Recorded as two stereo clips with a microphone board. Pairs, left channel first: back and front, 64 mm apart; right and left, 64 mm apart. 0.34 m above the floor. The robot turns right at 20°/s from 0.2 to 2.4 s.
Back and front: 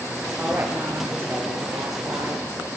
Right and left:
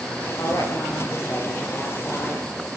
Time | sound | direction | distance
0.4 | a woman speaking | 65° right | 6 m